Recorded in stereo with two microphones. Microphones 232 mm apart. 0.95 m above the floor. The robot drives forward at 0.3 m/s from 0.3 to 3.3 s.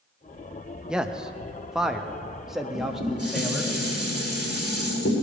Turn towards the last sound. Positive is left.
turn(degrees=85)